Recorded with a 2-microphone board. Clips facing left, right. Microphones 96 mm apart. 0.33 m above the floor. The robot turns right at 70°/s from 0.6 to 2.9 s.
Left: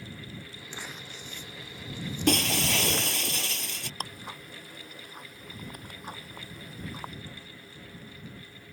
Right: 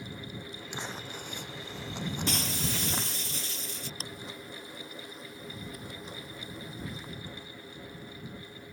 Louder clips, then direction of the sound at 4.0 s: Left 2 dB; 55° left (ahead or behind).